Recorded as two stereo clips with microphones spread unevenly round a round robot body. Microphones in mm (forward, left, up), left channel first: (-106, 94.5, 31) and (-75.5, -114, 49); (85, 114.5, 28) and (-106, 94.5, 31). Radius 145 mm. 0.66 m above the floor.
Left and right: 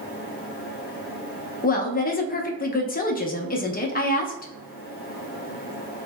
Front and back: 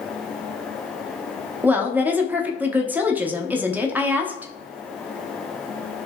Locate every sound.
1.6 s a woman speaking: 105° left, 0.7 m